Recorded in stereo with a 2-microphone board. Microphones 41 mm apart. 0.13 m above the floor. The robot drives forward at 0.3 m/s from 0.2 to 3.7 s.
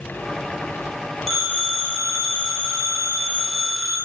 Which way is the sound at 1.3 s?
10° left (ahead or behind).